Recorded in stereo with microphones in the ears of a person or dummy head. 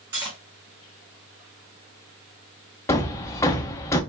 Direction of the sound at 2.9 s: 10° left (ahead or behind).